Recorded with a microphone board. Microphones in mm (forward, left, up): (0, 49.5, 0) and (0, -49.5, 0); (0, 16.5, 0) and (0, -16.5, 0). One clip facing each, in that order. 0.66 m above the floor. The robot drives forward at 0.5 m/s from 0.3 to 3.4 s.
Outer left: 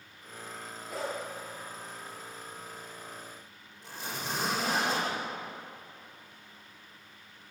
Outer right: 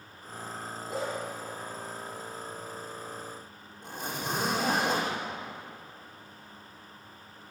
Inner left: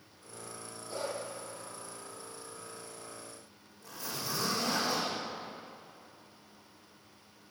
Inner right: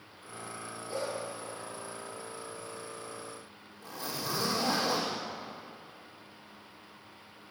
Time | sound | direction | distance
0.9 | a dog barking | 25° right (ahead or behind) | 5.5 m
3.8 | a zipper | 50° right (ahead or behind) | 4.5 m